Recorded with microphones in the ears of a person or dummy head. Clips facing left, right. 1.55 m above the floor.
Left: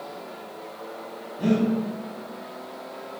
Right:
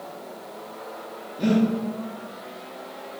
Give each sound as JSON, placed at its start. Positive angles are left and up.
{"t": 1.4, "sound": "breathing", "side_deg": -25, "distance_m": 1.1}